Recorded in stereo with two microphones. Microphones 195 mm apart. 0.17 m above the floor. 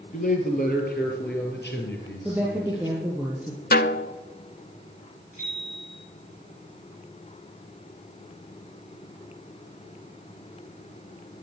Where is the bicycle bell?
35° left (ahead or behind), 9.5 m.